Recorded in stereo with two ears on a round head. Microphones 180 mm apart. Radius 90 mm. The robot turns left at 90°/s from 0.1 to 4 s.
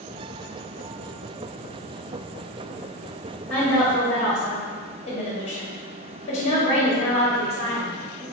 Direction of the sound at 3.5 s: 175° left.